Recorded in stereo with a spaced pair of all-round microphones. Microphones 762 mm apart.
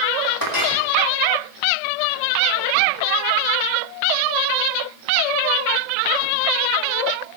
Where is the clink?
25° left (ahead or behind), 2.5 m.